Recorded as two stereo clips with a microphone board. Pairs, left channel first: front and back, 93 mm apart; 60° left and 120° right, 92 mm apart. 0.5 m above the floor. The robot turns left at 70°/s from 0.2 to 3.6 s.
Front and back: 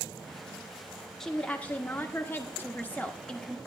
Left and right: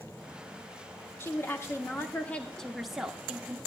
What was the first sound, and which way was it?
A woman speaking, 80° left.